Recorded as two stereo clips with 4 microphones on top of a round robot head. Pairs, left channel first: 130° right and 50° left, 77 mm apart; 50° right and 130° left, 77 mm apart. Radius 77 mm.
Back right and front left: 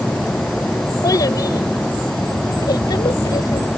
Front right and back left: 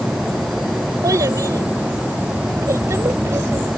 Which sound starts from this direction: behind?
A child speaking, at 1.0 s.